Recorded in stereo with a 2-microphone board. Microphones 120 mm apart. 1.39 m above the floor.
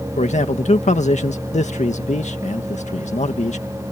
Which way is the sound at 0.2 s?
75° left (ahead or behind).